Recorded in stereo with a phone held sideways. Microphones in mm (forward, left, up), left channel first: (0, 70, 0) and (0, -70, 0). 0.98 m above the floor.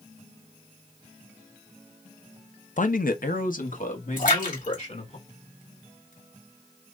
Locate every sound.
2.8 s a man speaking: 60° left (ahead or behind), 0.6 m; by 5.2 s 55° left (ahead or behind), 2.5 m
4.2 s a splash: 70° left (ahead or behind), 2.5 m